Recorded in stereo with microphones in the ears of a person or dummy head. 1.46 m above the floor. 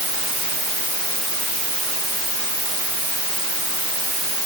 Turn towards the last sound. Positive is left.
No sound to turn to.